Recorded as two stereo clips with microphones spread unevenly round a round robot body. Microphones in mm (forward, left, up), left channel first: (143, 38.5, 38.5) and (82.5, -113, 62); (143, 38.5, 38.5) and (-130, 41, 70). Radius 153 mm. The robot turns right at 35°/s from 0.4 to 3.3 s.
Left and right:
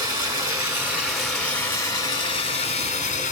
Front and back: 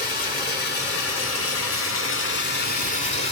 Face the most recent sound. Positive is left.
turn(degrees=60)